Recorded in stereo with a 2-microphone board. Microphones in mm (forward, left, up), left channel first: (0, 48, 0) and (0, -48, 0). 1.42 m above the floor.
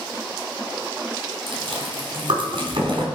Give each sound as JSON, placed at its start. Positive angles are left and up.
{"t": 1.5, "sound": "chewing", "side_deg": -65, "distance_m": 3.5}